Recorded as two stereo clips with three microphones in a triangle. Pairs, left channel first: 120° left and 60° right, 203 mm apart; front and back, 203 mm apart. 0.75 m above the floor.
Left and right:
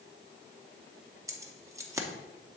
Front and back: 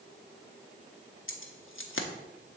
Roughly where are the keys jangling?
Ahead.